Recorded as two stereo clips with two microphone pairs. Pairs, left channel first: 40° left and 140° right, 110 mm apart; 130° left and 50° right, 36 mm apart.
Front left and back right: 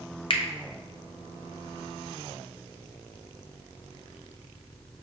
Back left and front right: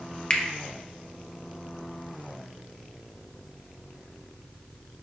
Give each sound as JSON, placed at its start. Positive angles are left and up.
{"t": 0.3, "sound": "a finger snap", "azimuth_deg": 70, "distance_m": 0.6}